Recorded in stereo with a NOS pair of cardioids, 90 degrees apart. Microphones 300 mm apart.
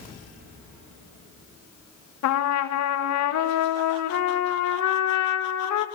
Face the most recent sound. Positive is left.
turn(degrees=60)